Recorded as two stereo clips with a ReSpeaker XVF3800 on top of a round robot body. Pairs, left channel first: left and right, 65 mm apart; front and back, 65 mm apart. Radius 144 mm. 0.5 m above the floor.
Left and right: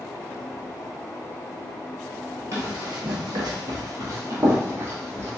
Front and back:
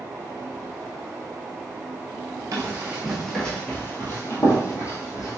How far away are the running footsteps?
About 0.7 m.